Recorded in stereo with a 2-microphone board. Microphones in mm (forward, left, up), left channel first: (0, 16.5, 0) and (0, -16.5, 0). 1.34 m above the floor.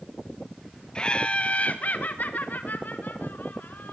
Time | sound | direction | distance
0.9 | laughter | 30° left (ahead or behind) | 1.6 m